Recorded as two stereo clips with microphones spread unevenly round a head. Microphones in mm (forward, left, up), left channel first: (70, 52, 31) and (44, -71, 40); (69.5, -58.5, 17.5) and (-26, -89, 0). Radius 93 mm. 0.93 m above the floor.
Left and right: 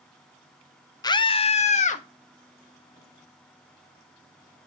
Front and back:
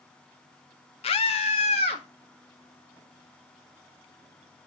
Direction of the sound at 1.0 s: 30° left.